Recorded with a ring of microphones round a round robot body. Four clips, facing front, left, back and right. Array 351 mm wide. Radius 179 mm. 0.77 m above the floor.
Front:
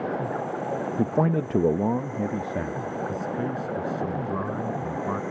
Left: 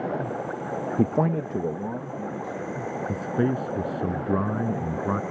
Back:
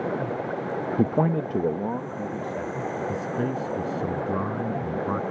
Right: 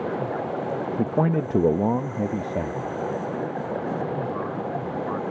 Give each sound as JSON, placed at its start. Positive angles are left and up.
{"t": 1.0, "sound": "a man speaking", "azimuth_deg": 125}
{"t": 3.1, "sound": "a man speaking", "azimuth_deg": 95}